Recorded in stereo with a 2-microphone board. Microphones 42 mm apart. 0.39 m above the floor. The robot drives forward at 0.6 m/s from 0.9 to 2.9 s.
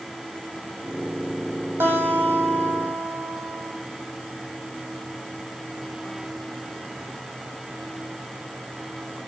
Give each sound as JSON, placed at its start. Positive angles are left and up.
{"t": 1.8, "sound": "a guitar", "side_deg": -65, "distance_m": 5.5}